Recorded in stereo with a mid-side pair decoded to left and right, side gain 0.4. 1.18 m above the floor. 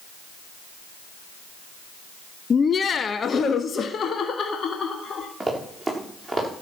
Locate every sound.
2.5 s laughter: 40° left, 0.8 m; by 5.3 s 60° left, 2.5 m
5.4 s running footsteps: 10° right, 6.5 m